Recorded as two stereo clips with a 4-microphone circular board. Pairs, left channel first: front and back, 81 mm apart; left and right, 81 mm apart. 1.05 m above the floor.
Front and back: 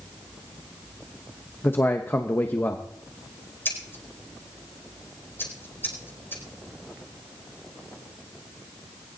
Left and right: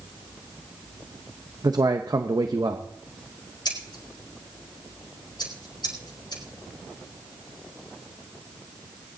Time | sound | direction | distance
1.6 | a man speaking | 60° right | 1.0 m
3.6 | scissors | 60° left | 4.5 m